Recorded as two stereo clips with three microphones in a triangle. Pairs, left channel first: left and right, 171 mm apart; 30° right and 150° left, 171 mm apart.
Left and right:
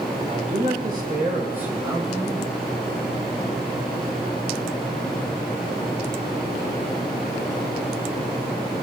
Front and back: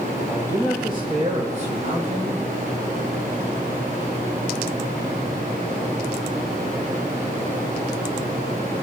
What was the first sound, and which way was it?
A man speaking, 135° right.